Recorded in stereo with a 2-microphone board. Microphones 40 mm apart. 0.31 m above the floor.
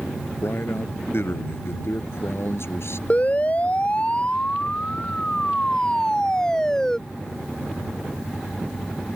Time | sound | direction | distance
0.4 | a man speaking | 65° left (ahead or behind) | ?
3.1 | a siren | 30° left (ahead or behind) | ?